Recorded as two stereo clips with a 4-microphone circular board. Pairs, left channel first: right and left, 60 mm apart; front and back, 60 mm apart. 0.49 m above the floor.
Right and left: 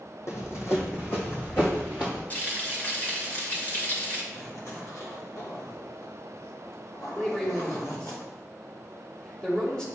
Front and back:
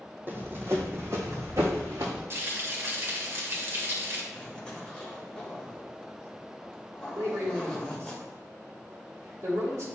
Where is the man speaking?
165° right, 2.5 m.